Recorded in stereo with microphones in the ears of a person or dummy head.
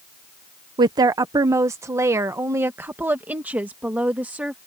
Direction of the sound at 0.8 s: 20° right (ahead or behind).